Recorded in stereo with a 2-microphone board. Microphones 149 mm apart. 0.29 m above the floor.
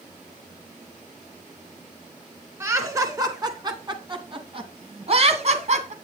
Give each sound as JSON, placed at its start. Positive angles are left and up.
{"t": 2.6, "sound": "laughter", "side_deg": -20, "distance_m": 2.5}